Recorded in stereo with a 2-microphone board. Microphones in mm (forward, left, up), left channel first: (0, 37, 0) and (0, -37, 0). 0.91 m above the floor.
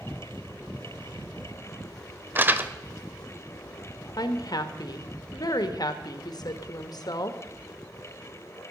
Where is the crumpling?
25° right (ahead or behind), 0.8 m.